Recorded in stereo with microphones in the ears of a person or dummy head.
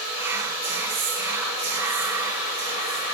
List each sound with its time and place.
0.2 s whispering: 15° right (ahead or behind), 1.2 m